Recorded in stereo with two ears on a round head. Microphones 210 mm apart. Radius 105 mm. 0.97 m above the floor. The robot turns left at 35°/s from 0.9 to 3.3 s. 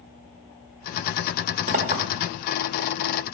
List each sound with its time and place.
1.7 s a clink: 40° right (ahead or behind), 1.6 m; by 2.0 s 25° right (ahead or behind), 1.6 m